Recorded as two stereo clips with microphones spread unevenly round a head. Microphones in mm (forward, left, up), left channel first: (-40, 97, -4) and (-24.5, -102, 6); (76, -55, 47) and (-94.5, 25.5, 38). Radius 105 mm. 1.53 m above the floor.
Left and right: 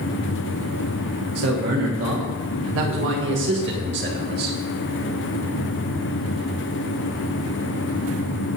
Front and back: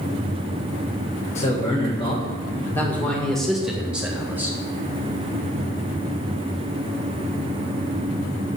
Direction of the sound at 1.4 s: 80° right.